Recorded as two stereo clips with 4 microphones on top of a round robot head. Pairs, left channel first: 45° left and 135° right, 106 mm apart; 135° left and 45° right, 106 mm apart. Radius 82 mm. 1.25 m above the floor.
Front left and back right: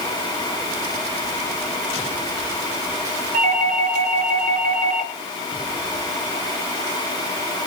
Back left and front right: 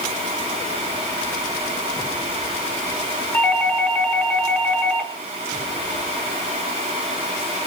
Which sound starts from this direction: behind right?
A doorbell, at 3.3 s.